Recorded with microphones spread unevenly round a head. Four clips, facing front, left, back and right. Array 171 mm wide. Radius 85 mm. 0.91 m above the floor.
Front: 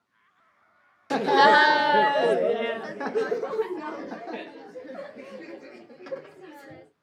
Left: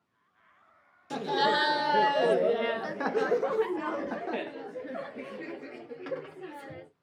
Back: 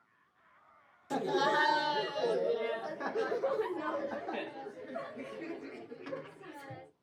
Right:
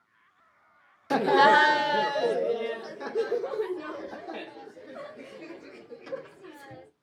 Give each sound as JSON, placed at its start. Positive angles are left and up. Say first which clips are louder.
{"t": 1.1, "sound": "laughter", "louder": "right 8 dB, front 12 dB", "azimuth_deg": -40, "distance_m": 0.7}